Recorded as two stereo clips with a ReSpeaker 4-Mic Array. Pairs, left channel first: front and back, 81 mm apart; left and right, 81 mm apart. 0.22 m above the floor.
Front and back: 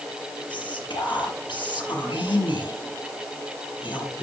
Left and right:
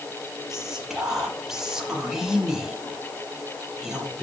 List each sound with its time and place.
0.5 s whispering: 5° right, 7.5 m